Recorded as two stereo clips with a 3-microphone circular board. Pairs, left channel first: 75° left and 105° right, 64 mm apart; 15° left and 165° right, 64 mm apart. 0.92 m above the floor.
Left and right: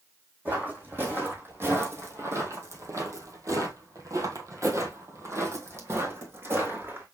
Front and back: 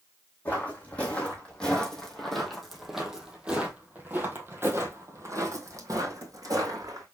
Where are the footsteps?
45° right, 2.5 m; by 7.0 s 155° right, 2.5 m.